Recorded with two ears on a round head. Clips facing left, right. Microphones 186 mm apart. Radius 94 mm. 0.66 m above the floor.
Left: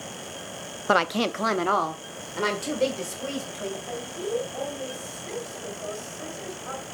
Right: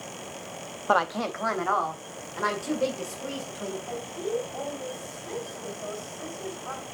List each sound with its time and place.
0.9 s a woman speaking: 25° left (ahead or behind), 0.6 m; by 3.8 s 40° left (ahead or behind), 3.5 m
3.9 s a woman speaking: 20° left (ahead or behind), 4 m